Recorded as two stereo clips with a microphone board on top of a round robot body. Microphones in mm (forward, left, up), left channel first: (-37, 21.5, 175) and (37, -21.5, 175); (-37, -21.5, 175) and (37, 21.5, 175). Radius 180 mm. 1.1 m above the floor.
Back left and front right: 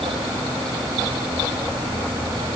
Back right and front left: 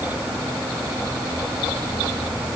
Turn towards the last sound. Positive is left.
No sound to turn to.